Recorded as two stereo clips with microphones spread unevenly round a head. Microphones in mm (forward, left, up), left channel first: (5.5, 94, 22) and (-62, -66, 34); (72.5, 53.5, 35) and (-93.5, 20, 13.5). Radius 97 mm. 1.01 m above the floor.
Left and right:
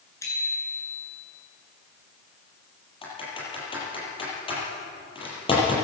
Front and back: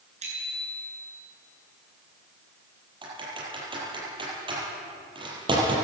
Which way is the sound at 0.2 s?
140° left.